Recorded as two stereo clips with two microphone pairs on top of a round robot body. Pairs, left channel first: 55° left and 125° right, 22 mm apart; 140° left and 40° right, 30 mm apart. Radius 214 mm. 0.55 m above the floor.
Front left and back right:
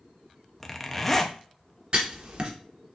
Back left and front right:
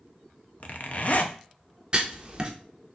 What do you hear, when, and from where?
0.6 s a zipper: 135° left, 0.8 m
1.9 s writing: 95° right, 1.2 m